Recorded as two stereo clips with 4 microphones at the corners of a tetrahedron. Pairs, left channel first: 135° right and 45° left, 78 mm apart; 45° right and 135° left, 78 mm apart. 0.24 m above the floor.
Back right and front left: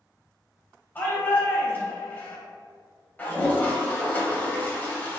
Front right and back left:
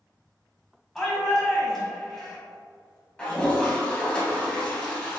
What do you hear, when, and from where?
0.9 s a shout: 125° right, 1.2 m
3.2 s a toilet flushing: 100° right, 1.1 m